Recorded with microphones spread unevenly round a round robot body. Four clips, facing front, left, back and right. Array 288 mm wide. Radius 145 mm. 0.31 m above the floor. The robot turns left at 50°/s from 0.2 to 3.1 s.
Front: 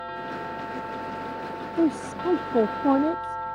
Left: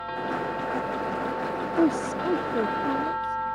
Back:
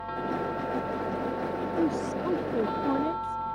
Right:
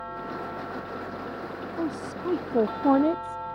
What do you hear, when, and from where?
1.8 s a woman speaking: 20° left; by 3.4 s 50° right